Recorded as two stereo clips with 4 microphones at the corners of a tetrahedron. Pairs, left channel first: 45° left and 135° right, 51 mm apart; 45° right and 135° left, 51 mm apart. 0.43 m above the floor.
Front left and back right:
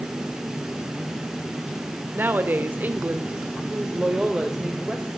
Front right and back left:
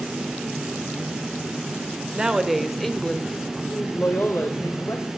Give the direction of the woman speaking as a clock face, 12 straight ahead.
5 o'clock.